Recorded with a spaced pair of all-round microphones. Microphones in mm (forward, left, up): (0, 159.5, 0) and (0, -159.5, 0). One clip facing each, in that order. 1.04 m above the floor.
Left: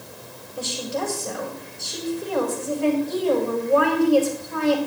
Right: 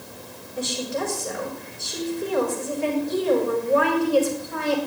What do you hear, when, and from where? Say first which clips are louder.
0.6 s a woman speaking: right 1 dB; 25° right (ahead or behind), 4 m